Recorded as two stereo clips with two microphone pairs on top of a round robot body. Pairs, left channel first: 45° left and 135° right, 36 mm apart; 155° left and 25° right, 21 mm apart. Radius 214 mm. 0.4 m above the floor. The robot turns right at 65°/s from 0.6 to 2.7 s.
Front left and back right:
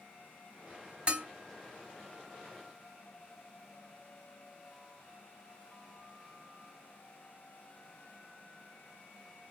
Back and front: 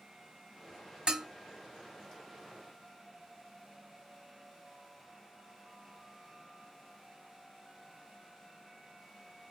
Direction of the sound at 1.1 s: 80° right.